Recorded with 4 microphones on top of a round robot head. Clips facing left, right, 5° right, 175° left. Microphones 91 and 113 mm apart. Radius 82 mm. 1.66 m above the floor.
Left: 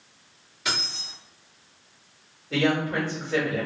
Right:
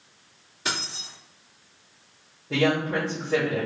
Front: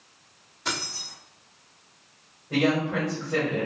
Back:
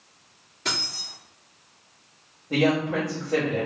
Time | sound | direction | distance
0.7 | keys jangling | 135° right | 1.3 m
2.5 | a woman speaking | 110° right | 1.2 m